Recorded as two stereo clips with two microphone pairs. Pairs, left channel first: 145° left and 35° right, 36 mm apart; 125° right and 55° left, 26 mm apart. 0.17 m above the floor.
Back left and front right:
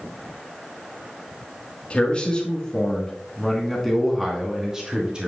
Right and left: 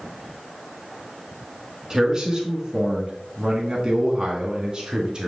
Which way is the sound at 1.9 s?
105° left.